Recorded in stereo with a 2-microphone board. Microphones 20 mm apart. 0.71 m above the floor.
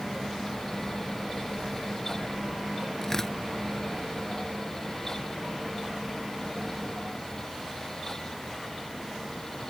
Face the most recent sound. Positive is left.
turn(degrees=25)  # may be behind; listen again after turning